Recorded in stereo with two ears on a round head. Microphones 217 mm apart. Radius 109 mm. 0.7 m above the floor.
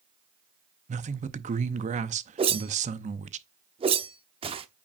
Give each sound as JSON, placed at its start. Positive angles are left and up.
{"t": 0.9, "sound": "a man speaking", "side_deg": -30, "distance_m": 0.6}
{"t": 2.4, "sound": "a whoosh", "side_deg": -25, "distance_m": 0.8}